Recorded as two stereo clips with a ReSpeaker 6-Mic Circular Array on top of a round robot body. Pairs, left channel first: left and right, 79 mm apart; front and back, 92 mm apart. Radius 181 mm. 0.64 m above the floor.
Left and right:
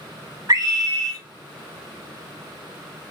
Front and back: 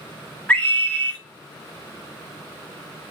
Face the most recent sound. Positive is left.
turn(degrees=-70)